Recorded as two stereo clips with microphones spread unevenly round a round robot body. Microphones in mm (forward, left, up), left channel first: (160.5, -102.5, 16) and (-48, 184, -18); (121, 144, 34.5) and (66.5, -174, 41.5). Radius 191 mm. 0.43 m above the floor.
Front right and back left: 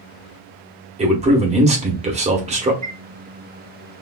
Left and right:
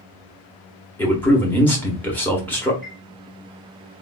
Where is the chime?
165° left, 0.8 m.